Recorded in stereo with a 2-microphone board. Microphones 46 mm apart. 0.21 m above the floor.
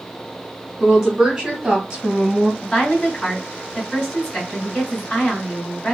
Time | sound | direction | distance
0.8 | a woman speaking | 10° right (ahead or behind) | 1.7 m
2.6 | a woman speaking | 20° left (ahead or behind) | 1.9 m